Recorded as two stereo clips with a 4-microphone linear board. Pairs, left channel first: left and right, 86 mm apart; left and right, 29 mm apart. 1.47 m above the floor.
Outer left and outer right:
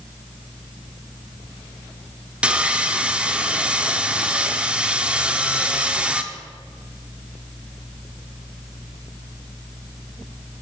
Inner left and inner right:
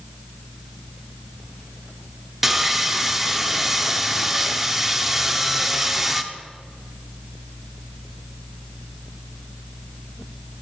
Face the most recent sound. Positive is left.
turn(degrees=-15)  # may be behind; listen again after turning